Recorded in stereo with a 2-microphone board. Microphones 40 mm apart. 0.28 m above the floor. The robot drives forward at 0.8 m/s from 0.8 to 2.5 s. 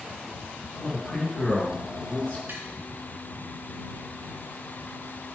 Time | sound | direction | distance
0.8 | a man speaking | 25° left (ahead or behind) | 3.5 m
2.5 | tapping | 55° right (ahead or behind) | 3 m